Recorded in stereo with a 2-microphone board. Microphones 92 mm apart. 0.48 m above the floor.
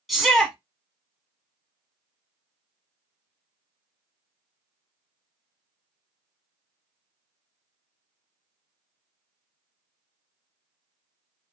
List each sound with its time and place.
0.1 s a shout: centre (ahead or behind), 0.9 m